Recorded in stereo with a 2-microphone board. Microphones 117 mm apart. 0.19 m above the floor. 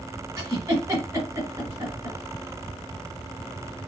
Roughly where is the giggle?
Right.